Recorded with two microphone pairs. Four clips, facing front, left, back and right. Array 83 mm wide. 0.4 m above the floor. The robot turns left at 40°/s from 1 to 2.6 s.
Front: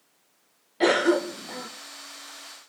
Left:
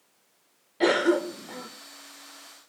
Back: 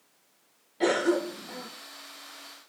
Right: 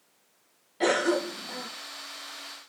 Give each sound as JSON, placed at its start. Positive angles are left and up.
{"t": 0.8, "sound": "a cough", "azimuth_deg": 20, "distance_m": 1.2}